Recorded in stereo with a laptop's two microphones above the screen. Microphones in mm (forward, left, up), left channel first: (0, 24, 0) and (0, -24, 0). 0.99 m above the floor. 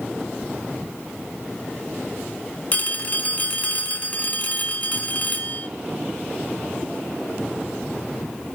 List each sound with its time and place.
2.7 s a phone ringing: 35° left (ahead or behind), 1.3 m